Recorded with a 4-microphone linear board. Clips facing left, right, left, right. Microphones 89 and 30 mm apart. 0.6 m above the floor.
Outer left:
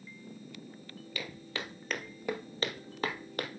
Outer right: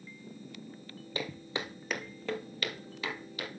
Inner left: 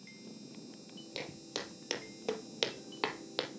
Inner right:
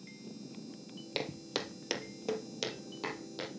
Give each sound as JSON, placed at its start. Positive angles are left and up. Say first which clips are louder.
{"t": 1.1, "sound": "footsteps", "louder": "outer right 4 dB, inner right 5 dB", "side_deg": -30, "distance_m": 0.9}